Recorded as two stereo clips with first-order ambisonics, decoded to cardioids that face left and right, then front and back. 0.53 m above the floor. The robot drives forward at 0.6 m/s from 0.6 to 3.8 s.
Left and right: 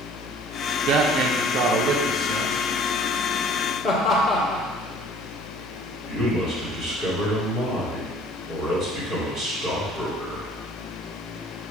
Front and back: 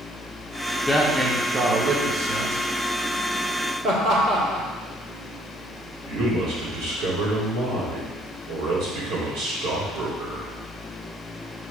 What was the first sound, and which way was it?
A man speaking, 85° right.